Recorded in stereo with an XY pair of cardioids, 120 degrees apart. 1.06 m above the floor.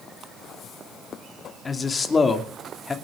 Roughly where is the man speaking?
Ahead left.